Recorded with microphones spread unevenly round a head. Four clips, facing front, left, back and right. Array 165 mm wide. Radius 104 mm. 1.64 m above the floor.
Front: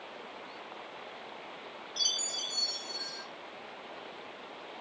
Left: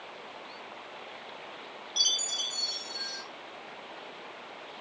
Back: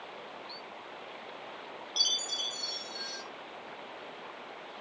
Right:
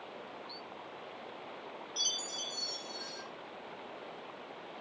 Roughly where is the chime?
Behind left.